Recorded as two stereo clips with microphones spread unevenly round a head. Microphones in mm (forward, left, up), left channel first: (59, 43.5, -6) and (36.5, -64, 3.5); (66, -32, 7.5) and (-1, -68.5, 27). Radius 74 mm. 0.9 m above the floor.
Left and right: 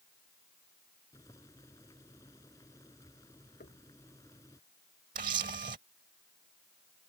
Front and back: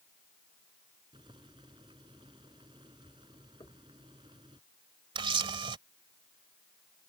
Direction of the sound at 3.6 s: 90° left.